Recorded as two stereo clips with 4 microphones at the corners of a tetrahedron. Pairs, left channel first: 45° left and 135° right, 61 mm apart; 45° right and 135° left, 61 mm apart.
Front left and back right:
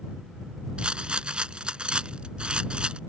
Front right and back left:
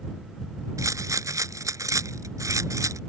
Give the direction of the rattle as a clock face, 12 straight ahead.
7 o'clock.